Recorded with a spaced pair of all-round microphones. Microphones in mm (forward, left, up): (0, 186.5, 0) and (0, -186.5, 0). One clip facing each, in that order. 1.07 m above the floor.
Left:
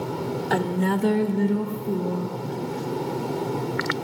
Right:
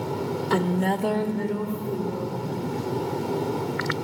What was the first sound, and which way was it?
A woman speaking, 10° right (ahead or behind).